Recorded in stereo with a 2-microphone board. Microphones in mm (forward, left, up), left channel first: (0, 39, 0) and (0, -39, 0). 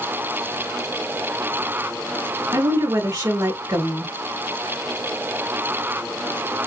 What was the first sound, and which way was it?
A woman speaking, 40° right (ahead or behind).